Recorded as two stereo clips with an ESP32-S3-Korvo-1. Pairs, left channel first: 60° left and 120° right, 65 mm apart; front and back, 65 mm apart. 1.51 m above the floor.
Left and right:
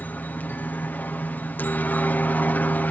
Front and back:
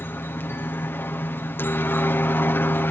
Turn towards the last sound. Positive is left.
turn(degrees=20)